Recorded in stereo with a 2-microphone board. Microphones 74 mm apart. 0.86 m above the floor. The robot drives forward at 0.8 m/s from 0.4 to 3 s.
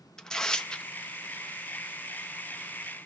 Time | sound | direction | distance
0.2 | tearing paper | 10° left (ahead or behind) | 0.8 m